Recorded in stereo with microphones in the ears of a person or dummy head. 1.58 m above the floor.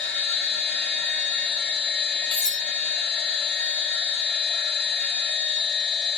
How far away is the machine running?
About 1.1 m.